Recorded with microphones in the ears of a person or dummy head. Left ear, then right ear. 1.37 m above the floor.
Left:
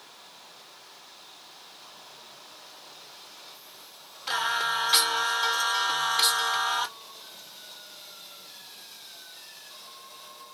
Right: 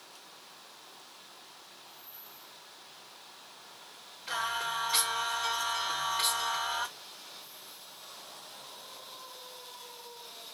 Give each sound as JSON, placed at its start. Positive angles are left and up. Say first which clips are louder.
{"t": 4.3, "sound": "singing", "louder": "left 6 dB", "side_deg": 40, "distance_m": 1.1}